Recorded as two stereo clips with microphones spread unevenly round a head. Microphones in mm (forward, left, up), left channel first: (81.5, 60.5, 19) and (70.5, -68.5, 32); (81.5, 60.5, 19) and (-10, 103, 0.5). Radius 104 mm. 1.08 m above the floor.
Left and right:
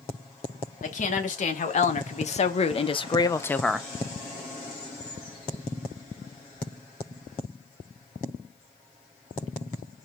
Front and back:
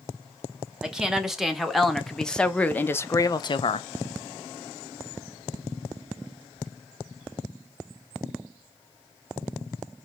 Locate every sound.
0.8 s a woman speaking: 75° left, 2.5 m; by 3.9 s 15° right, 0.7 m